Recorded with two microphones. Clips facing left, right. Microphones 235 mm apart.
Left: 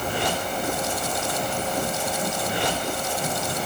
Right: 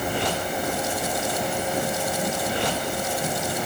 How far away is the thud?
No thud in this recording.